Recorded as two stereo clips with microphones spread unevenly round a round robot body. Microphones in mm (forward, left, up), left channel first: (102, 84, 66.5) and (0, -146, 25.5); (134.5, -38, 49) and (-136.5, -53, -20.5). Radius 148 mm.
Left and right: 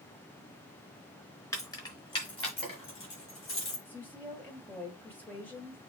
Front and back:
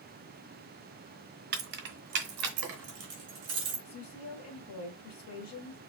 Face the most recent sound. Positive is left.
turn(degrees=-20)